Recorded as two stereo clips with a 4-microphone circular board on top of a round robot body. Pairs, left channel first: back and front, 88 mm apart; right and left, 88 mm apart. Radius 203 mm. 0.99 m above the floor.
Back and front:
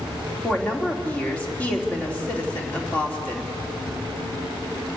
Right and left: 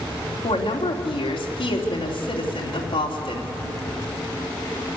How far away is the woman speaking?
About 3 m.